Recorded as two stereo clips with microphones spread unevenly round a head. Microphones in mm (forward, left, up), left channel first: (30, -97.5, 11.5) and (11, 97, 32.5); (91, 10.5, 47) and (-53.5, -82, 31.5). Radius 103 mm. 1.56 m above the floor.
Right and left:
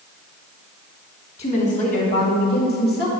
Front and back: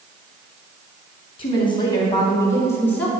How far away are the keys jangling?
I don't hear keys jangling.